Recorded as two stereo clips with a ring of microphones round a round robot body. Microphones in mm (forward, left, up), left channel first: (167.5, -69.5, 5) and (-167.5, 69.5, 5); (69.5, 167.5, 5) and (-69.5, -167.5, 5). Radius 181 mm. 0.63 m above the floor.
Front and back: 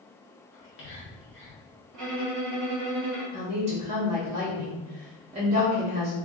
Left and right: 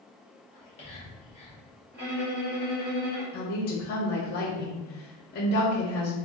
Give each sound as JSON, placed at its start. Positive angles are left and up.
{"t": 0.5, "sound": "whispering", "azimuth_deg": 5, "distance_m": 1.2}
{"t": 1.9, "sound": "a violin", "azimuth_deg": -170, "distance_m": 1.6}
{"t": 3.3, "sound": "a woman speaking", "azimuth_deg": 100, "distance_m": 0.7}